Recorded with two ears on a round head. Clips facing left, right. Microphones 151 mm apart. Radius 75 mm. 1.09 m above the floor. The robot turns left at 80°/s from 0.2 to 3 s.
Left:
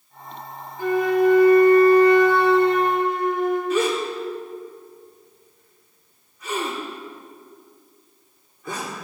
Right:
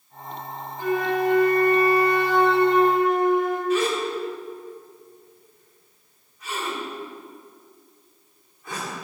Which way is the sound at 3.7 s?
80° left.